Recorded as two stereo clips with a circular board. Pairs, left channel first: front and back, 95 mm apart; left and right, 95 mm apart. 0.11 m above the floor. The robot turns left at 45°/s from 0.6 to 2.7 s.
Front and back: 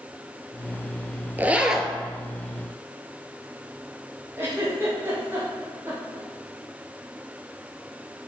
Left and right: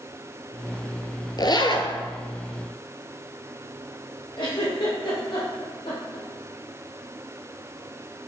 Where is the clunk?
I don't hear a clunk.